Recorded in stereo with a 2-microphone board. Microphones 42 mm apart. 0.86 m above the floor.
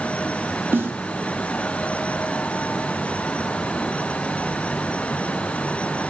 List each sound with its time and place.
0.7 s a snare drum: 65° right (ahead or behind), 0.6 m